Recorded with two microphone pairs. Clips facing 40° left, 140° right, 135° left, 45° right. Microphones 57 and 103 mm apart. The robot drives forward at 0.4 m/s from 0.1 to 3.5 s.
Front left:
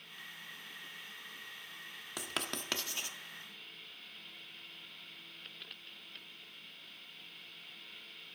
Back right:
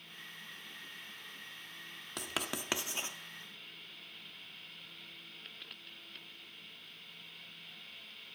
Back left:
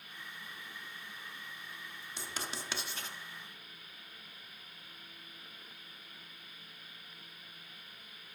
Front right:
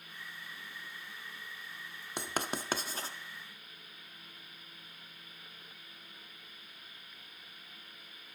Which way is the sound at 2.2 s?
45° right.